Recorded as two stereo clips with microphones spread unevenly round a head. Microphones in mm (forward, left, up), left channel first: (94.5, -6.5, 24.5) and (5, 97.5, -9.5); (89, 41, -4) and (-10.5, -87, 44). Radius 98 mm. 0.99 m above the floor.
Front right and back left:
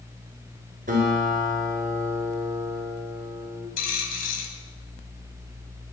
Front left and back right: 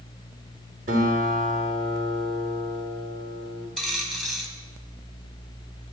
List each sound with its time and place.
0.9 s a guitar: straight behind, 3.5 m
3.8 s a dropped coin: 45° right, 2.5 m